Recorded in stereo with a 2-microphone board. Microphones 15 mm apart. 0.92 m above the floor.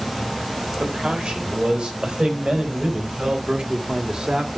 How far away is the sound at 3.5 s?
About 2 m.